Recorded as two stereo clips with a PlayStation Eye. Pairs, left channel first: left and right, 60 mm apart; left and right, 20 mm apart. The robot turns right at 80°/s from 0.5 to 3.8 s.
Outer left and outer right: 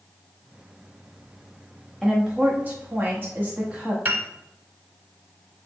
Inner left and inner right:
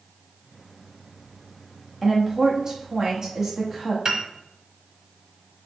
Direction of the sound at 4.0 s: 40° right (ahead or behind).